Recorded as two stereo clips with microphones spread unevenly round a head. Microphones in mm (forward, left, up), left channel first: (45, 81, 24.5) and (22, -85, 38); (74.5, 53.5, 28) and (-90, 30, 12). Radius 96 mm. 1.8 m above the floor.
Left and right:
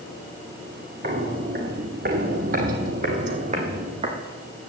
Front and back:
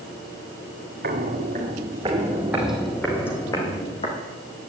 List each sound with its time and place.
1.0 s footsteps: 135° right, 3 m; by 4.2 s 50° right, 4 m